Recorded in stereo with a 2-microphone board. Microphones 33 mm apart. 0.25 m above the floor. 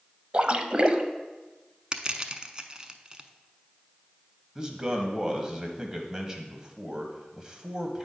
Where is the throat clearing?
No throat clearing in this recording.